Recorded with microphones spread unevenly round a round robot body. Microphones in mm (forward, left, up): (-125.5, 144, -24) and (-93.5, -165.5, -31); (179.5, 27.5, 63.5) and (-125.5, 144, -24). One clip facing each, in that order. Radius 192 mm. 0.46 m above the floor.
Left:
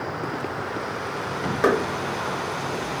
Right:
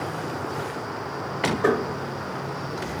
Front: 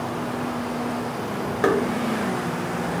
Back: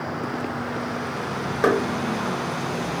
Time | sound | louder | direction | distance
1.6 | knocking | left 2 dB, back 1 dB | 70° left | 0.9 m